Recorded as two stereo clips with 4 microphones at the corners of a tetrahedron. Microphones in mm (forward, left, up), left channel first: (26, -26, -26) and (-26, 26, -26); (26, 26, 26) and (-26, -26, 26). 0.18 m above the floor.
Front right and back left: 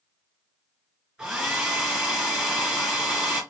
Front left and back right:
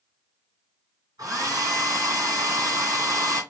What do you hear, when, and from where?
1.2 s a hair dryer: 145° right, 2.5 m